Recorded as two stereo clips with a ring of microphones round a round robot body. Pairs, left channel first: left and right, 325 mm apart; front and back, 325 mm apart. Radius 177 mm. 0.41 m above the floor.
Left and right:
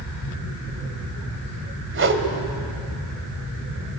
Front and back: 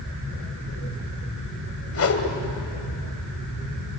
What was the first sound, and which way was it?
A whoosh, 40° right.